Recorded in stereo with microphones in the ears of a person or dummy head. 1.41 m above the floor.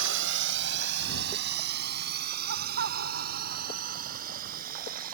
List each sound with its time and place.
0.0 s a drone: 75° right (ahead or behind); by 5.2 s 50° right (ahead or behind)
2.5 s laughter: 60° right (ahead or behind)